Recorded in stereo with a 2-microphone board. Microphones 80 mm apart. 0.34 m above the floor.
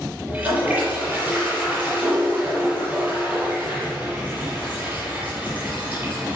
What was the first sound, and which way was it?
A toilet flushing, 20° right (ahead or behind).